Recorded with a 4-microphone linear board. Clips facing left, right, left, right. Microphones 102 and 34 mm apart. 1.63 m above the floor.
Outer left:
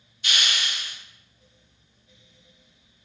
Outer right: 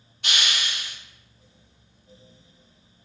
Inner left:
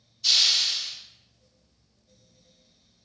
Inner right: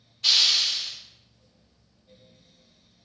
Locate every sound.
0.2 s a hiss: 65° right (ahead or behind), 1.5 m